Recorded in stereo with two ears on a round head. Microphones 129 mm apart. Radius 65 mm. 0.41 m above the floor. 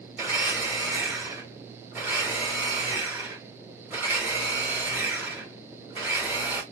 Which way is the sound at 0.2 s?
15° right (ahead or behind).